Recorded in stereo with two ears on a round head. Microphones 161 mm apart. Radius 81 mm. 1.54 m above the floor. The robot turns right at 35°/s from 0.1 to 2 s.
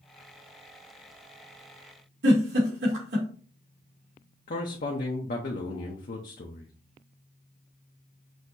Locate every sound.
2.2 s a giggle: 75° right (ahead or behind), 2.5 m
4.5 s a man speaking: 50° left (ahead or behind), 0.8 m